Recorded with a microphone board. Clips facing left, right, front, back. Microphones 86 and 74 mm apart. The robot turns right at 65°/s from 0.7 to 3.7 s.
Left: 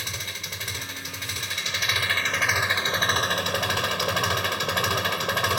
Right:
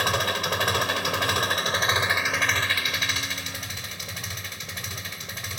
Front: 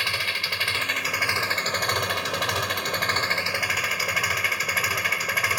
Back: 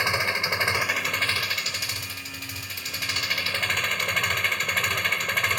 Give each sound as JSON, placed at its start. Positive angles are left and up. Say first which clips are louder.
{"t": 0.0, "sound": "an engine running", "louder": "right 12 dB, back 3 dB", "azimuth_deg": -110}